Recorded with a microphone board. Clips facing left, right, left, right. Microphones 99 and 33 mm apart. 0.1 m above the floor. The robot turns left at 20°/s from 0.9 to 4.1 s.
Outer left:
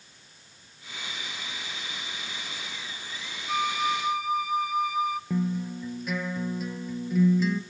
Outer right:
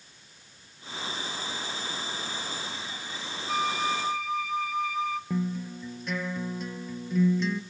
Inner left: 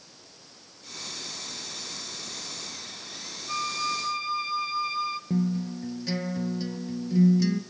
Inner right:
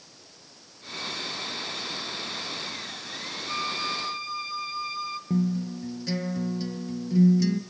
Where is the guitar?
5° left (ahead or behind), 1.3 m.